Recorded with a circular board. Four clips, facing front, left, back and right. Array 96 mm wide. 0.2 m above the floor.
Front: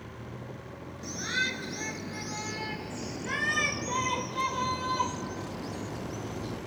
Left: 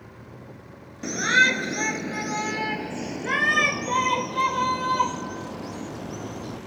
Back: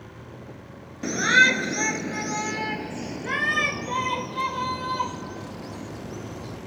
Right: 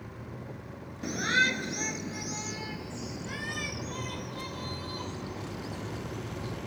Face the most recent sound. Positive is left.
turn(degrees=90)